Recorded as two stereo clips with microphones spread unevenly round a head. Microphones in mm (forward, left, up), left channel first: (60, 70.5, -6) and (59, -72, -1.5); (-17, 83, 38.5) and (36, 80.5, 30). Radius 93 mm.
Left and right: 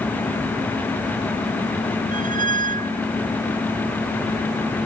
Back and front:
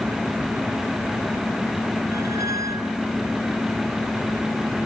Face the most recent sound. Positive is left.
turn(degrees=-60)